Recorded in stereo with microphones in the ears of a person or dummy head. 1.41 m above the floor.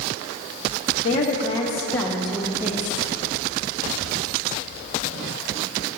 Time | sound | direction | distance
1.0 | a woman speaking | 45° left (ahead or behind) | 0.8 m